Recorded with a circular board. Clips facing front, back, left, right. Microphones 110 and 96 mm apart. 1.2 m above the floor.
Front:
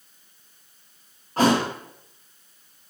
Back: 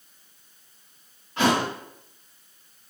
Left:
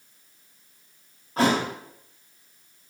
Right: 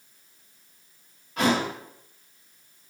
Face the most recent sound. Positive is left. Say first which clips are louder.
# front 3 dB, left 1 dB
turn(degrees=40)